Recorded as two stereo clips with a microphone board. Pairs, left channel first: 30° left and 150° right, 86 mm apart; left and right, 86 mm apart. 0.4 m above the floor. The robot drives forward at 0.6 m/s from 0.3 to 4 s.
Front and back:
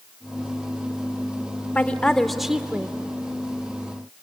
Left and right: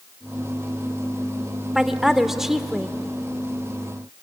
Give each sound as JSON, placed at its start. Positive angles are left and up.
{"t": 1.8, "sound": "a woman speaking", "azimuth_deg": -10, "distance_m": 1.0}